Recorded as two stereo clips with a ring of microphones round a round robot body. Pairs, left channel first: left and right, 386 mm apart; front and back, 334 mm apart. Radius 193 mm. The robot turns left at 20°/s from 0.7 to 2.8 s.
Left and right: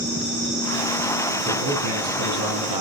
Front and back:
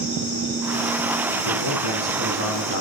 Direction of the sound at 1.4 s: 25° right.